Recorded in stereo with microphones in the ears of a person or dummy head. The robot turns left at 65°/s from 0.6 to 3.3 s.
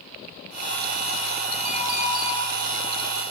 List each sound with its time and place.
1.6 s a clink: 55° right (ahead or behind), 5 m; by 2.3 s 10° right (ahead or behind), 5 m